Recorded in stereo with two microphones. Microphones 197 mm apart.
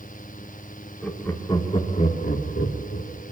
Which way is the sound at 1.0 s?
5° left (ahead or behind).